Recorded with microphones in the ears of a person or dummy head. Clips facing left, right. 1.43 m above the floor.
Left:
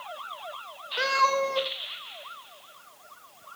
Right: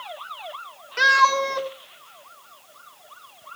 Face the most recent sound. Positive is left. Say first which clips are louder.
# right 3 dB
turn(degrees=-40)  # may be behind; listen again after turning